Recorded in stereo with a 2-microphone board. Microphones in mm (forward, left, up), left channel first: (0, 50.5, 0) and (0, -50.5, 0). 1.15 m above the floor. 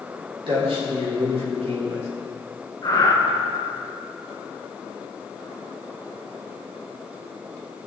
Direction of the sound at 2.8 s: 40° left (ahead or behind).